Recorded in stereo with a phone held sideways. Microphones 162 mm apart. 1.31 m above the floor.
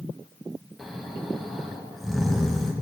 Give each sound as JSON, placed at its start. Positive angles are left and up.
{"t": 0.8, "sound": "snoring", "side_deg": 0, "distance_m": 1.1}